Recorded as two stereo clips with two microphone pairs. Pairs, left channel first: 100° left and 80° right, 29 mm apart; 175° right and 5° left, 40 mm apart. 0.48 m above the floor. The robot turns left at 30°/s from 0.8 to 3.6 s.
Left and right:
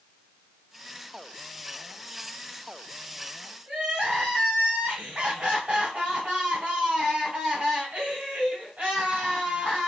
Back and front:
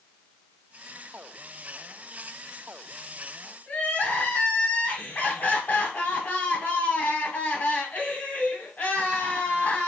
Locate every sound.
3.7 s crying: 130° right, 1.9 m